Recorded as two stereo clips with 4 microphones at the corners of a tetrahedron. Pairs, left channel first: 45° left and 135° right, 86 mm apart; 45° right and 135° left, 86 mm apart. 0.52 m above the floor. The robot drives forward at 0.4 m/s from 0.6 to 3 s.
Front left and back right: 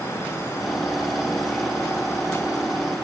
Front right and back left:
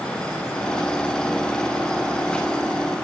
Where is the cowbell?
No cowbell in this recording.